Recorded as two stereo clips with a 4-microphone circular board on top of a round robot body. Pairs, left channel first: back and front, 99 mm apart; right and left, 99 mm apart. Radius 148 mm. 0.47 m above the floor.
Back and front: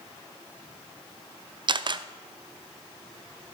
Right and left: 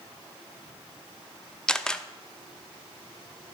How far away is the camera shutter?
About 0.6 m.